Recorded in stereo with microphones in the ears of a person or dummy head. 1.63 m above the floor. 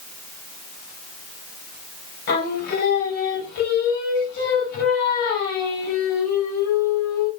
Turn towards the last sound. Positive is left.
turn(degrees=60)  # may be behind; listen again after turning